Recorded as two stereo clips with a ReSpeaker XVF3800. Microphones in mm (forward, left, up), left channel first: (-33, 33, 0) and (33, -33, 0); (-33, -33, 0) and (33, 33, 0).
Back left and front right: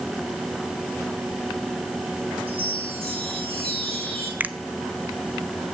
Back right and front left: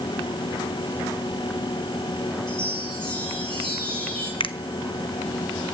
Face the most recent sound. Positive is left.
turn(degrees=-115)